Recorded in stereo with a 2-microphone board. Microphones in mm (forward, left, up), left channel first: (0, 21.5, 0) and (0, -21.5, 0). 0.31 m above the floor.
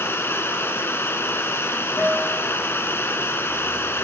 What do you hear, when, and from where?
0.0 s running water: 70° left (ahead or behind), 1.4 m
2.0 s a guitar: 50° left (ahead or behind), 7.5 m